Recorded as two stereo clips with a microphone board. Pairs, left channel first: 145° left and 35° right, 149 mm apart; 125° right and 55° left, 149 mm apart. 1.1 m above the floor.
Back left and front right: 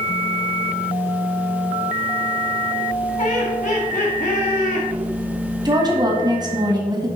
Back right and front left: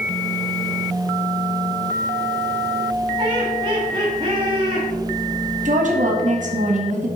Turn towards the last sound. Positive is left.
turn(degrees=25)